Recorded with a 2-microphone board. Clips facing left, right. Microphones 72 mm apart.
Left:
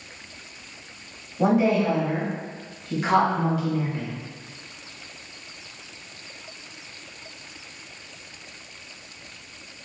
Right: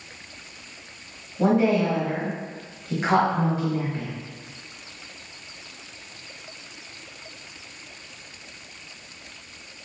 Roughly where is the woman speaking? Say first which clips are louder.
Even; centre.